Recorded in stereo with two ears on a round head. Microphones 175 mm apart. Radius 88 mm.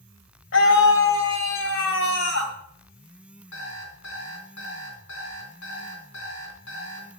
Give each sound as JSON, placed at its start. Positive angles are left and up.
{"t": 0.5, "sound": "a scream", "side_deg": 70, "distance_m": 2.5}
{"t": 3.5, "sound": "an alarm clock", "side_deg": 75, "distance_m": 4.0}